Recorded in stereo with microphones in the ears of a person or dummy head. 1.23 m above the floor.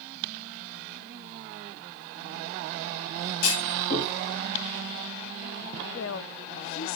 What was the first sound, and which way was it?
A clunk, 85° left.